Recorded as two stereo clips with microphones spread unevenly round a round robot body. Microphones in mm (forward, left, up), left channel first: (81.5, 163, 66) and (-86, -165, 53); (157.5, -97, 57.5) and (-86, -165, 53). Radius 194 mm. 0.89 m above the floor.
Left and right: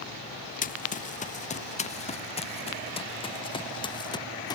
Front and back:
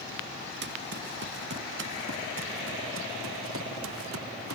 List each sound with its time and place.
0.6 s running footsteps: 135° left; by 4.6 s 145° left